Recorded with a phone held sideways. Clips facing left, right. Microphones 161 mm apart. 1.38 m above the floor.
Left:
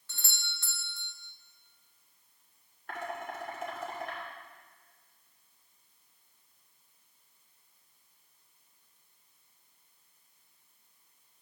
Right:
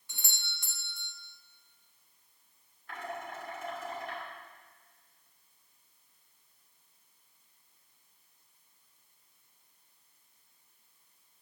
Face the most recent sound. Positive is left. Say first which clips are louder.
# left 2 dB
turn(degrees=65)  # may be behind; listen again after turning